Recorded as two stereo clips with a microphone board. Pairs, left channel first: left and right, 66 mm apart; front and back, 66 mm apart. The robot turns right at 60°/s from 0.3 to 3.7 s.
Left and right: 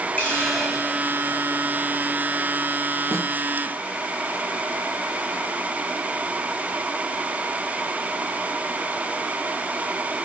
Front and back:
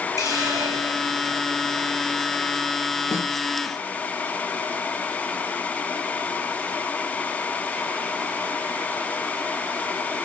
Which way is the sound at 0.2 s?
160° left.